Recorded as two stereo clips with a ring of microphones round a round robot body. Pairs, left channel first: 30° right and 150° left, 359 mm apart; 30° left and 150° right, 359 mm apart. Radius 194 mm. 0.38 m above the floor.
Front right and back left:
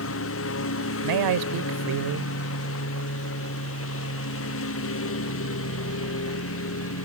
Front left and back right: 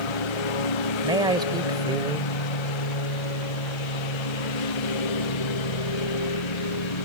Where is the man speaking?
130° left.